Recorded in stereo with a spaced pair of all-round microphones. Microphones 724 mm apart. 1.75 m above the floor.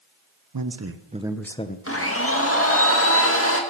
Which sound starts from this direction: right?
A man speaking, at 0.5 s.